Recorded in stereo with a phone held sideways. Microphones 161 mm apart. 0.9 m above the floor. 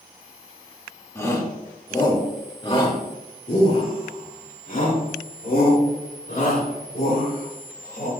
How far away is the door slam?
I don't hear a door slam.